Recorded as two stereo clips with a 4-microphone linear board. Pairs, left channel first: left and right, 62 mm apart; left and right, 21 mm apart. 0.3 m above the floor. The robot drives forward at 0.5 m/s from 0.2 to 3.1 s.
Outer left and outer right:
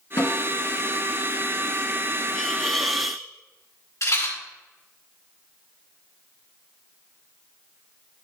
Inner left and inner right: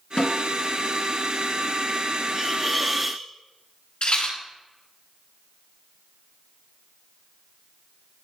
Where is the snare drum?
65° left (ahead or behind), 3 m.